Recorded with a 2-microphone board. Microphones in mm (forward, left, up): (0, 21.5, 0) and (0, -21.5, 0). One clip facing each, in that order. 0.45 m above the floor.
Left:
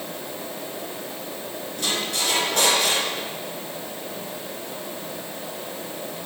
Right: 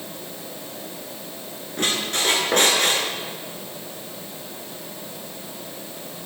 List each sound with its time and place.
1.8 s a squeak: 50° right (ahead or behind), 5 m